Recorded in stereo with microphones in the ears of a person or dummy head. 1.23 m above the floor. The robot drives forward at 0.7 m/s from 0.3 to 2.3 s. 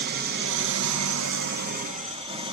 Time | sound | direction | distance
0.0 | an engine running | 50° right (ahead or behind) | 0.8 m